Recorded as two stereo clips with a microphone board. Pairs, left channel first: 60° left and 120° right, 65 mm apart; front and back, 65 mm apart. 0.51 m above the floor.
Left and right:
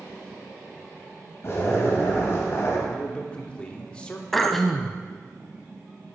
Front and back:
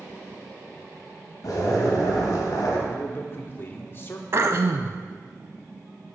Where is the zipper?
15° left, 1.9 m.